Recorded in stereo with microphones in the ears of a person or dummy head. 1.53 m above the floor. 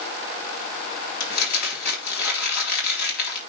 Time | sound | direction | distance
1.2 | crumpling | 60° left (ahead or behind) | 3.5 m